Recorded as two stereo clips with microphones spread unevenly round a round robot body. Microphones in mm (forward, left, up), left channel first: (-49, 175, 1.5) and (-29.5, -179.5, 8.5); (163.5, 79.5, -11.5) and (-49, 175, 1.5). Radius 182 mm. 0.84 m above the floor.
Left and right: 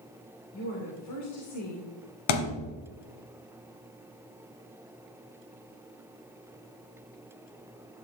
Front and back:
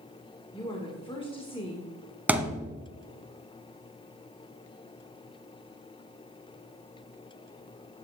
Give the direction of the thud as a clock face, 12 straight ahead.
10 o'clock.